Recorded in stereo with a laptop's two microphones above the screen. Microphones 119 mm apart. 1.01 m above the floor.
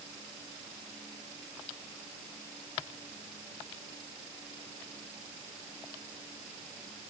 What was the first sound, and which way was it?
Only background noise.